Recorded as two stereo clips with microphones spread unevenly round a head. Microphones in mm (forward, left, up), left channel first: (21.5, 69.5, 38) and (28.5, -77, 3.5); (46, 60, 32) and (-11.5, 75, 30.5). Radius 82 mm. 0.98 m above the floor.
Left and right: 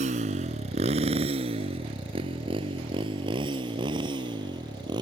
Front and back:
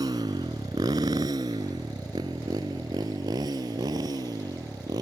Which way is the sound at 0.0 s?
140° right.